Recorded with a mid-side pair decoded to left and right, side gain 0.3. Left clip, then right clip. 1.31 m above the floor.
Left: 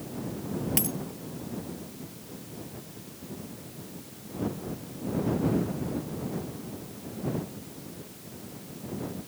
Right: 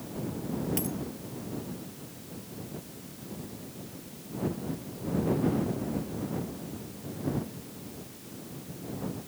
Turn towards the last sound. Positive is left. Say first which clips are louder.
# left 3 dB
turn(degrees=65)